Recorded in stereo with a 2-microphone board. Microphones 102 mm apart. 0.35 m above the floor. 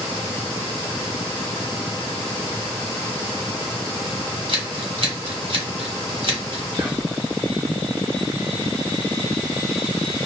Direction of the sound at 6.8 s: 30° right (ahead or behind).